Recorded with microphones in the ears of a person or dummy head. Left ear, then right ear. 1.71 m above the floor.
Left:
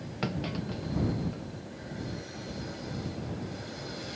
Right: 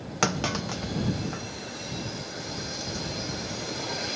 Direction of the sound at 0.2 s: 50° right (ahead or behind).